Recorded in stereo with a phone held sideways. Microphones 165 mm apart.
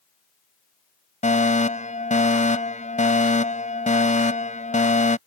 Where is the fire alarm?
50° left (ahead or behind).